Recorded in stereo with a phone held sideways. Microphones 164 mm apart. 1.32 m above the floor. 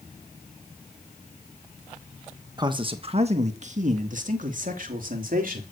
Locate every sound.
2.6 s a man speaking: 25° right (ahead or behind), 1.2 m; by 5.6 s 65° right (ahead or behind), 3.5 m